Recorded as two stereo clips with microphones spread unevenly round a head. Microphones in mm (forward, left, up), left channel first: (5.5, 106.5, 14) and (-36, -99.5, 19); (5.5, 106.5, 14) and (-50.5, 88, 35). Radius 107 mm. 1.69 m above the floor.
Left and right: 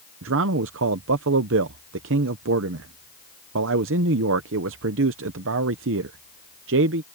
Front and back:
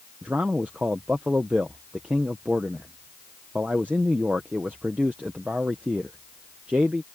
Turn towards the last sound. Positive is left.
turn(degrees=-100)